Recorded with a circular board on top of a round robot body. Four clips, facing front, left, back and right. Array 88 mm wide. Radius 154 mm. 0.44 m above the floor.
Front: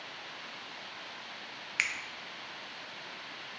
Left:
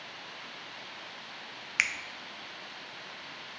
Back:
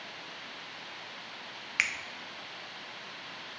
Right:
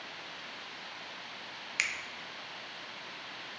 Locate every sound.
1.8 s a finger snap: 110° left, 0.6 m